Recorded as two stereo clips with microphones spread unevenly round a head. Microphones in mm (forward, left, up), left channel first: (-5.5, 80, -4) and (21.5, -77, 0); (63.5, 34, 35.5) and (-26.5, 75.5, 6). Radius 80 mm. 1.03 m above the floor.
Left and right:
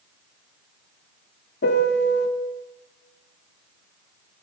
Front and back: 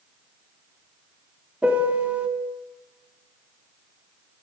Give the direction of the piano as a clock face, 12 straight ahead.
9 o'clock.